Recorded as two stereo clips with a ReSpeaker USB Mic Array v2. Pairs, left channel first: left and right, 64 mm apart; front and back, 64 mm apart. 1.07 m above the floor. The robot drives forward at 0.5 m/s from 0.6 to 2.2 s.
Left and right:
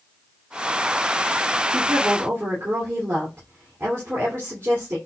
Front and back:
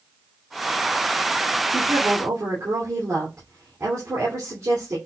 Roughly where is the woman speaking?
Behind right.